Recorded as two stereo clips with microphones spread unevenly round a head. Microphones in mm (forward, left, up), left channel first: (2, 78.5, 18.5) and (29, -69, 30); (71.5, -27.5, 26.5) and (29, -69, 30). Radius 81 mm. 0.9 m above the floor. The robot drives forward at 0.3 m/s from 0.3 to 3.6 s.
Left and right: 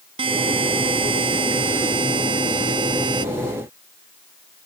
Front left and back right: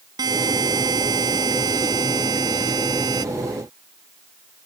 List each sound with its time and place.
0.2 s a buzzer: 140° right